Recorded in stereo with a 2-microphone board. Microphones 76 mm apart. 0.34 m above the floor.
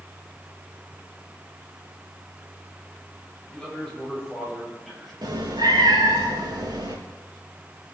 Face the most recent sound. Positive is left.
turn(degrees=-80)